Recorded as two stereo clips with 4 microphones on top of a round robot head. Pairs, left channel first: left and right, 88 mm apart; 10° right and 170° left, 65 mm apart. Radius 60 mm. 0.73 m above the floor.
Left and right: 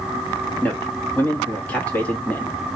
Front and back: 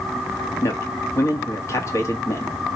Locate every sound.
0.6 s a man speaking: 20° left, 1.4 m